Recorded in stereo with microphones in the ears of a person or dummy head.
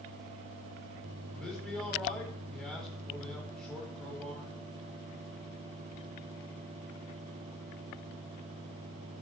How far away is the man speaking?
About 4.5 m.